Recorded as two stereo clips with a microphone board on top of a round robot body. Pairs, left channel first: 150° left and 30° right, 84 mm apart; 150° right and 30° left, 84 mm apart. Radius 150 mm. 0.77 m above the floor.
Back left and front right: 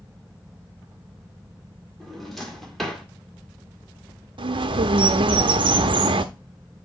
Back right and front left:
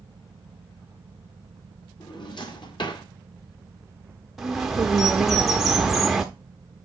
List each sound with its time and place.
2.0 s a drawer: 120° right, 1.8 m
4.4 s a bird: 60° right, 0.5 m